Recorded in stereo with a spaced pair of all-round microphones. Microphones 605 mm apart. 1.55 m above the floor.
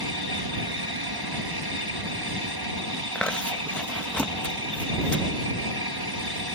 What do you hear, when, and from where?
0.0 s an aircraft: 40° right (ahead or behind)
3.1 s chewing: centre (ahead or behind)